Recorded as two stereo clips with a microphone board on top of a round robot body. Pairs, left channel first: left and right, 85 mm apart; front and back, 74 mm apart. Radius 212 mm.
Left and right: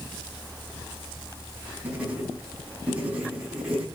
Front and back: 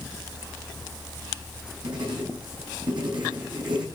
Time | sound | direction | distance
1.8 | writing | 170° right | 10 m